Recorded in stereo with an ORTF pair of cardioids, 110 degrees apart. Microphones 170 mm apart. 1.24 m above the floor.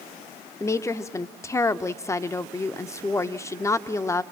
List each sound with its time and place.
0.6 s a woman speaking: 15° left, 0.7 m